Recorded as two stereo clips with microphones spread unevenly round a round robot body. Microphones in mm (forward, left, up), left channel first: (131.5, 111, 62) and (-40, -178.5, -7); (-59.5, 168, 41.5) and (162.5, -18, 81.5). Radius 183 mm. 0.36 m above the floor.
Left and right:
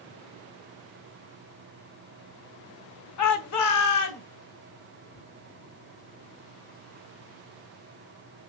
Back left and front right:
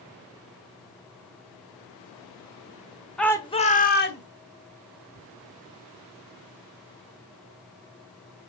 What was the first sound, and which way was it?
A shout, 65° left.